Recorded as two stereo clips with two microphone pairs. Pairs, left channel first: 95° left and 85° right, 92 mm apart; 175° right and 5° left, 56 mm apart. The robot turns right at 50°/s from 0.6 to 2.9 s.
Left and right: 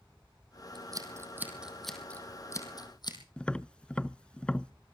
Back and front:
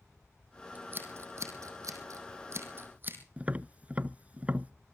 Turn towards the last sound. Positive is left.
turn(degrees=20)